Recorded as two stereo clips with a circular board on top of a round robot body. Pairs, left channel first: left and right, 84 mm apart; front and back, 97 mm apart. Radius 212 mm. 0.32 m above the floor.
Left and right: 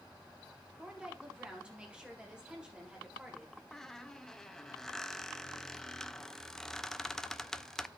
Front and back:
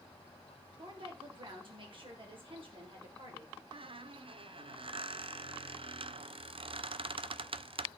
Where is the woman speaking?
170° right, 2 m.